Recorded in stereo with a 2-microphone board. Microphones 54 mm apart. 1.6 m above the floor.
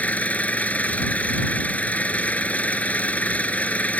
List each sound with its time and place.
0.0 s an engine running: 25° left (ahead or behind)